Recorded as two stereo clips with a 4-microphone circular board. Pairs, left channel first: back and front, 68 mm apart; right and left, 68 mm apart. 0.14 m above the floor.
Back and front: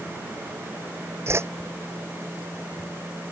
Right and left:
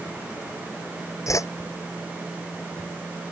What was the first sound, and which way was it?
A whoosh, 50° right.